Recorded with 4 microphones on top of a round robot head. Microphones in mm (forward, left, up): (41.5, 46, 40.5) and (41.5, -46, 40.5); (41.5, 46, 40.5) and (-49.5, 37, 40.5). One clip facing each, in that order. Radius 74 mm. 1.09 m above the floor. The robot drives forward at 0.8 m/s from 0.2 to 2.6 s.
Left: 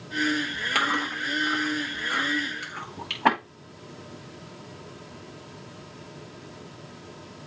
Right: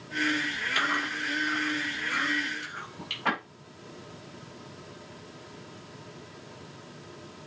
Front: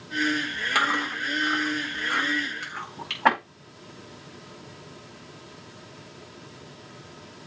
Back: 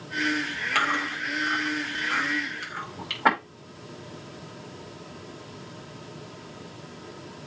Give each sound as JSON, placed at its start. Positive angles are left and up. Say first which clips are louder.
{"t": 0.8, "sound": "chewing", "louder": "left 4 dB, front 1 dB", "azimuth_deg": 80, "distance_m": 4.5}